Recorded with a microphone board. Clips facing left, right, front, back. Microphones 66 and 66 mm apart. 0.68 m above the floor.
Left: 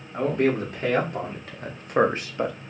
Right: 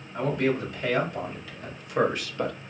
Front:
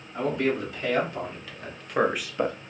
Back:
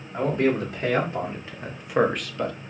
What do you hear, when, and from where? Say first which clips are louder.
0.1 s a man speaking: left 3 dB, back 3 dB; 135° left, 1.7 m; by 2.6 s 10° left, 0.6 m